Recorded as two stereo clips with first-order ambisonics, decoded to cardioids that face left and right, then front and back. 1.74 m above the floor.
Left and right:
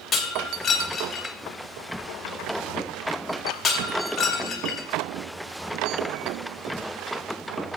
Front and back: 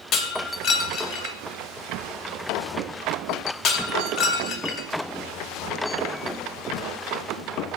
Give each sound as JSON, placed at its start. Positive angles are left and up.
{"t": 0.1, "sound": "breaking glass", "azimuth_deg": 25, "distance_m": 1.9}